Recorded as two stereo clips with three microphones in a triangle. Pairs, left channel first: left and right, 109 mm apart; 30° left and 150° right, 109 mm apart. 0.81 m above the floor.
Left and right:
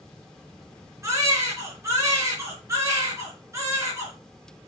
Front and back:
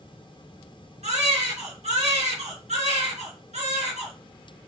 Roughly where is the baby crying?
Behind right.